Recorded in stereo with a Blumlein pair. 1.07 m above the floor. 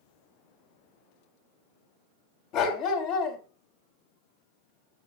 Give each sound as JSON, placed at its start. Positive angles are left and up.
{"t": 2.5, "sound": "a dog barking", "azimuth_deg": 40, "distance_m": 2.5}